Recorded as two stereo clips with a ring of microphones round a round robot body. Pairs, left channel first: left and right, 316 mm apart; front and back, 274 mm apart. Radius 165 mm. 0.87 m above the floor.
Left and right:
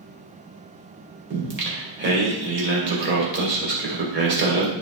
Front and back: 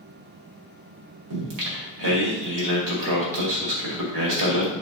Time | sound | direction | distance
1.3 | singing | 150° right | 2.5 m